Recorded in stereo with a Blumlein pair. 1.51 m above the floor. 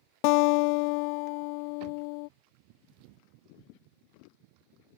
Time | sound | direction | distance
0.2 | a guitar | 45° left | ?